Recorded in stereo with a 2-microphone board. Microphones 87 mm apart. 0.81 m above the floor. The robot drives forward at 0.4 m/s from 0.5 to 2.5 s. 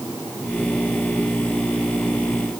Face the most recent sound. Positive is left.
No sound to turn to.